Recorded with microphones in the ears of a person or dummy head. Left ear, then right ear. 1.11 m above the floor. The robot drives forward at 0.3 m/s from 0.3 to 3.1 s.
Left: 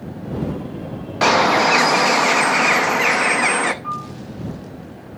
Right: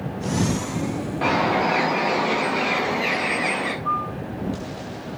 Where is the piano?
60° left (ahead or behind), 3 m.